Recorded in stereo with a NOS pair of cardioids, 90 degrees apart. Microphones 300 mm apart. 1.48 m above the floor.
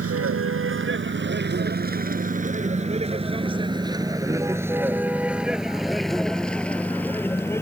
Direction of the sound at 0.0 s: 45° right.